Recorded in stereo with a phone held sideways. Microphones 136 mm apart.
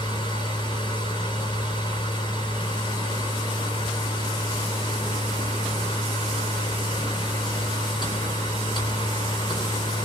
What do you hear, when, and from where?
0.0 s a machine running: 35° left (ahead or behind), 4 m